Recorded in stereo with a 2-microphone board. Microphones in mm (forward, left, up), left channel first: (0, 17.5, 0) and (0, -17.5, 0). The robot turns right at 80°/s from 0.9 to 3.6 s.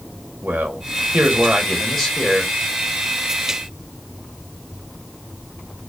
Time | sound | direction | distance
0.4 | a man speaking | 75° right | 1.1 m